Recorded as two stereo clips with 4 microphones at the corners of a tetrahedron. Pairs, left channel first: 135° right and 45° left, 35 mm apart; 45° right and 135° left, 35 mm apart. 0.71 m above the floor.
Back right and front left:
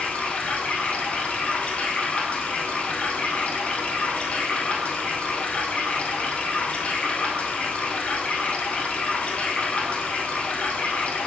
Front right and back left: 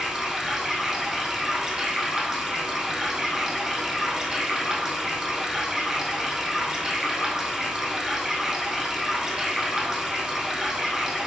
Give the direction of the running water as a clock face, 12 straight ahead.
5 o'clock.